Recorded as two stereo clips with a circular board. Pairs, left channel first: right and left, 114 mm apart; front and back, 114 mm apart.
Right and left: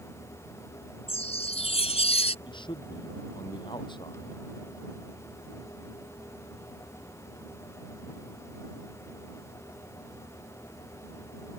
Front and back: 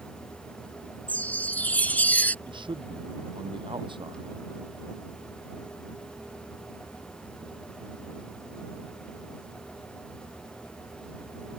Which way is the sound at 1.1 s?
75° right.